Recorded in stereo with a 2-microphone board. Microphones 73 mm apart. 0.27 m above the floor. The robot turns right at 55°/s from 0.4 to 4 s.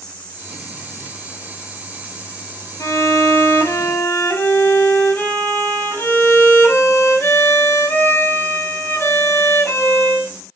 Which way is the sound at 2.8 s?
75° left.